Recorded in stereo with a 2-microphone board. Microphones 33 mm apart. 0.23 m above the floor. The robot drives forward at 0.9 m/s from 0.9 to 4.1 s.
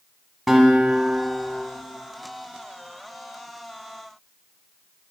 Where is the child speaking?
No child speaking in this recording.